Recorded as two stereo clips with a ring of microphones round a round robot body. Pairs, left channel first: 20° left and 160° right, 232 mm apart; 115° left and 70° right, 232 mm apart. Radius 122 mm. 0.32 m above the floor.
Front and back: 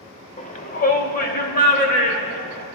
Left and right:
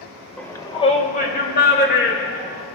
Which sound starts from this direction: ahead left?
A shout, at 0.4 s.